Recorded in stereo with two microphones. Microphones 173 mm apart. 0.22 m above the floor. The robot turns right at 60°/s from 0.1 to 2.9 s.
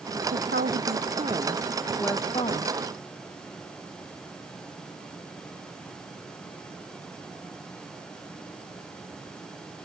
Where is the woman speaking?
95° right; by 2.7 s 55° left.